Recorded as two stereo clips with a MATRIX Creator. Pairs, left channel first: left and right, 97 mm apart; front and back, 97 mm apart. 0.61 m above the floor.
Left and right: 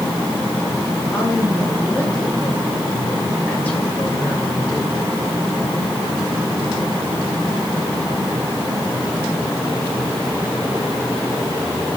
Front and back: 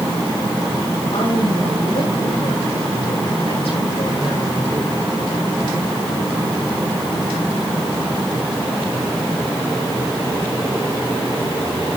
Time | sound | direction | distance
1.1 | a woman speaking | 15° left | 8 m